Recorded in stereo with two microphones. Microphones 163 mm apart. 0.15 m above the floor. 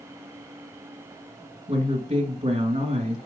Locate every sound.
1.7 s a woman speaking: 35° right (ahead or behind), 1.4 m